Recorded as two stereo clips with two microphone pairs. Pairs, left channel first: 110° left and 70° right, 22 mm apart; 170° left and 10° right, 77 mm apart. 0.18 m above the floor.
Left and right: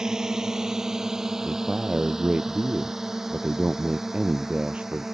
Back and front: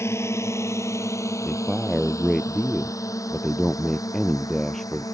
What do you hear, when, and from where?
0.0 s a drone: 135° right; by 5.2 s 150° right
1.4 s a man speaking: 105° right